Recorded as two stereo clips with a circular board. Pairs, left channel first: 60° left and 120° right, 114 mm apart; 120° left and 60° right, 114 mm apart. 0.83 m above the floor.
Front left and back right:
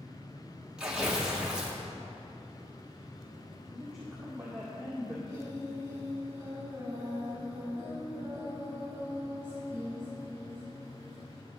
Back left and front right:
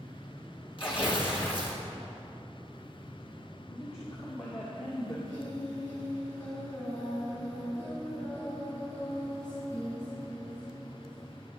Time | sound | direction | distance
0.8 | tearing paper | 160° left | 1.6 m
3.7 | a woman speaking | 150° left | 2 m
5.3 | singing | 175° left | 2.5 m